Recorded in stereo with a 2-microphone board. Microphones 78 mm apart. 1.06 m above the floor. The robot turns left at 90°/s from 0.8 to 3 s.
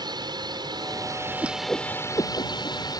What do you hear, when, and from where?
0.0 s a drone: 65° right (ahead or behind); by 3.0 s 55° left (ahead or behind)
1.4 s a whoosh: 20° right (ahead or behind); by 2.8 s 75° left (ahead or behind)